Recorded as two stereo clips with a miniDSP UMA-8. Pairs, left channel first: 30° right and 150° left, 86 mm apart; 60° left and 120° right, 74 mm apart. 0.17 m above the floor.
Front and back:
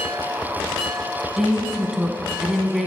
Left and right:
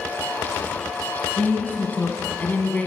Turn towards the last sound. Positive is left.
turn(degrees=70)